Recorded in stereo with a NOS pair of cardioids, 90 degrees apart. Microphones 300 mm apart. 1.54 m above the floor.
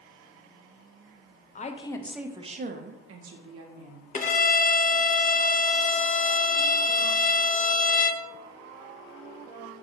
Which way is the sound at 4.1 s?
30° left.